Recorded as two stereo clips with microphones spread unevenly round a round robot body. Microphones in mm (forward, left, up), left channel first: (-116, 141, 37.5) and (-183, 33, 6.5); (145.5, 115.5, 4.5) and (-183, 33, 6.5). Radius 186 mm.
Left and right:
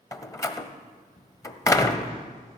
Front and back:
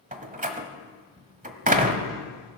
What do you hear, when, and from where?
0.1 s a door slam: 130° left, 1.3 m